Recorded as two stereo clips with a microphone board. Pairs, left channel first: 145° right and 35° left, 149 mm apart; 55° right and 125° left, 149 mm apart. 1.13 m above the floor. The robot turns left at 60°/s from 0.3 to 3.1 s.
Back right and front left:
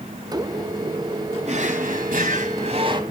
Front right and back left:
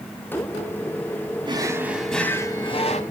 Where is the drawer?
70° left, 2 m; by 3.0 s 20° right, 2 m.